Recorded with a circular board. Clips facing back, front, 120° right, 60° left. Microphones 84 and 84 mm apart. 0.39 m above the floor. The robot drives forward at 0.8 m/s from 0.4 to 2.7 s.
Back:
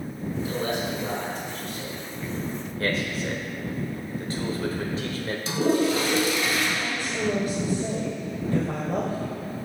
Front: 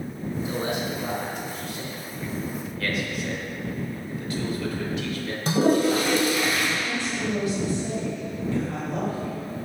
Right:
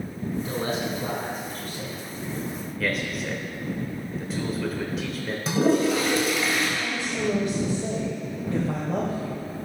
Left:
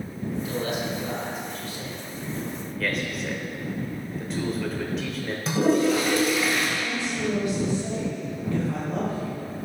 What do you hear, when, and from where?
0.5 s a man speaking: 60° right, 2.5 m; by 2.5 s 100° right, 2.5 m
2.8 s a man speaking: 155° left, 1.1 m
5.5 s a toilet flushing: 30° right, 1.4 m
6.8 s a woman speaking: 160° right, 1.3 m